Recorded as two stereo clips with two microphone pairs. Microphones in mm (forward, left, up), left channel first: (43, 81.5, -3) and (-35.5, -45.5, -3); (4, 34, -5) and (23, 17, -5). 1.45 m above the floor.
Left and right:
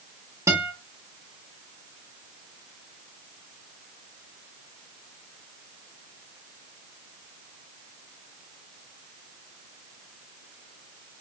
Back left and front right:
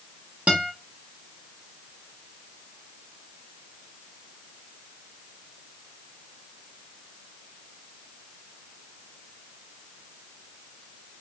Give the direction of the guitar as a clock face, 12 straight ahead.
2 o'clock.